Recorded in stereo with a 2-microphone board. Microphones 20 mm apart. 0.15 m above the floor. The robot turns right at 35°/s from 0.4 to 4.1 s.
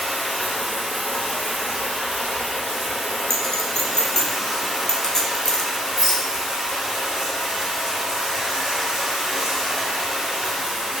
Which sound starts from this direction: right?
A rattle, at 6.0 s.